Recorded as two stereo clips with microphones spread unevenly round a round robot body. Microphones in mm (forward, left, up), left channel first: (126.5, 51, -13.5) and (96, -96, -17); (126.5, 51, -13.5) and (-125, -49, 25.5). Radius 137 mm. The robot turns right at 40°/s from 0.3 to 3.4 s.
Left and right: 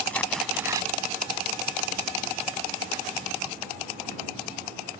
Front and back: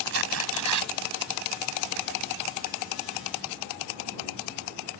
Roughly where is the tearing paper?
Behind.